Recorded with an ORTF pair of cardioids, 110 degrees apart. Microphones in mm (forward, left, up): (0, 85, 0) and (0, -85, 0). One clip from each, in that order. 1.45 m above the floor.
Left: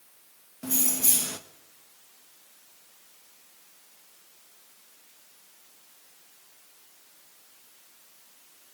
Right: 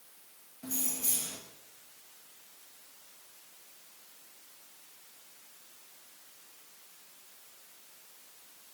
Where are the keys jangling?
50° left, 1.3 m.